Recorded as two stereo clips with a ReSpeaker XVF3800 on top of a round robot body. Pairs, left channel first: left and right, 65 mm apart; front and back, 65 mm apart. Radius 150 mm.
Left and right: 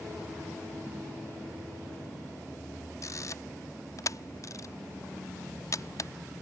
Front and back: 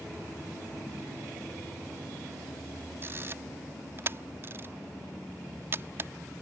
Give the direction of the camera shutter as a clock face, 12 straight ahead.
8 o'clock.